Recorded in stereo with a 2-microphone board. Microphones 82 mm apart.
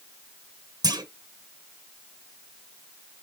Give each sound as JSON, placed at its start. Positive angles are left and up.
{"t": 0.8, "sound": "a clunk", "side_deg": -50, "distance_m": 0.8}